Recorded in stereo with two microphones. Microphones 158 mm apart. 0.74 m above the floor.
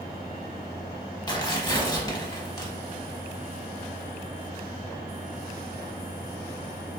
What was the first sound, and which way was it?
Tearing paper, 25° left (ahead or behind).